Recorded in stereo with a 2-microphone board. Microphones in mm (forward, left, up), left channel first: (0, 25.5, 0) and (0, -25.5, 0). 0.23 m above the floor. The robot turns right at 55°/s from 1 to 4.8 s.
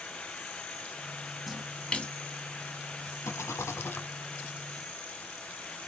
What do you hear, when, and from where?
1.5 s a splash: centre (ahead or behind), 0.8 m; by 2.1 s 30° left (ahead or behind), 0.8 m
3.2 s a rattle: 85° left, 0.7 m; by 4.1 s 130° left, 0.7 m